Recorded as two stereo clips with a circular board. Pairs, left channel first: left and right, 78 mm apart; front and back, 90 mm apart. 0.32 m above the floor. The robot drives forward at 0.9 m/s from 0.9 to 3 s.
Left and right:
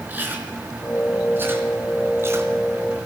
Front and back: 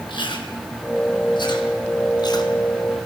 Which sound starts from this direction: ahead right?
Chewing, at 0.1 s.